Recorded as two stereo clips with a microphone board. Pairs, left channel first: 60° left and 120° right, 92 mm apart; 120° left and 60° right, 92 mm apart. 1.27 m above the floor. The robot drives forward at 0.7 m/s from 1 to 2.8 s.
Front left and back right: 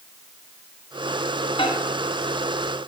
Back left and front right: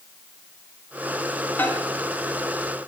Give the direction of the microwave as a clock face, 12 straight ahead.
10 o'clock.